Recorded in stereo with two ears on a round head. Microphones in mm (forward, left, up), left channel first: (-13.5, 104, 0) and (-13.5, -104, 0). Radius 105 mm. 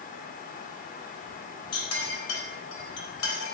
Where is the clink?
75° left (ahead or behind), 3.5 m.